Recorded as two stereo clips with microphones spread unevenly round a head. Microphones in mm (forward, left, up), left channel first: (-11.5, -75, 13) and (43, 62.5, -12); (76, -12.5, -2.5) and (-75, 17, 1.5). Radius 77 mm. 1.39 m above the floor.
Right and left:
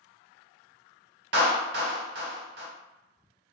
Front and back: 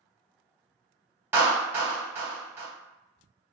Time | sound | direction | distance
1.3 | a clap | 95° left | 1.1 m